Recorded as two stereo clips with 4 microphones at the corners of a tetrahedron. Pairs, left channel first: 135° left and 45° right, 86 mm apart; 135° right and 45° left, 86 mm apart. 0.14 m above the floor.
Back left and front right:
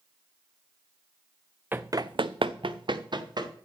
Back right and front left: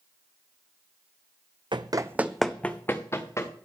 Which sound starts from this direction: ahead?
Running footsteps, at 1.7 s.